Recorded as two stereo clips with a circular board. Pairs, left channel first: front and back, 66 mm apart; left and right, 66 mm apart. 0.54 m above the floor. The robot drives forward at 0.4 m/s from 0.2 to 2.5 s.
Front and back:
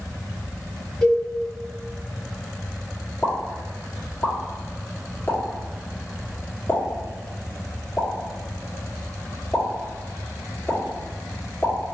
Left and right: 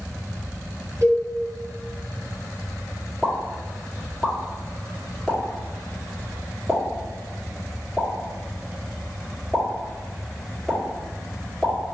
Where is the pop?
Straight ahead, 1.3 m.